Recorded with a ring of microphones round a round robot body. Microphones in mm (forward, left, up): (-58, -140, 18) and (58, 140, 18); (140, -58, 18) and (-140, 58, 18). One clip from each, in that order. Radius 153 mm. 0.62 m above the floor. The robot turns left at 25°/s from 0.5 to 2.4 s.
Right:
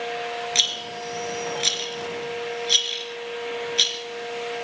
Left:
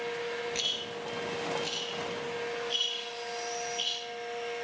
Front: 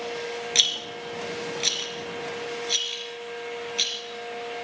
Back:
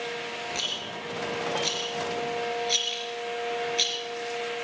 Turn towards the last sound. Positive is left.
turn(degrees=-110)